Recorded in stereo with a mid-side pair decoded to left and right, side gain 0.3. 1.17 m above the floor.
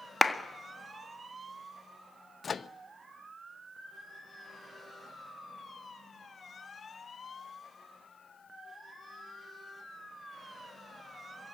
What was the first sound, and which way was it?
A clap, 25° left.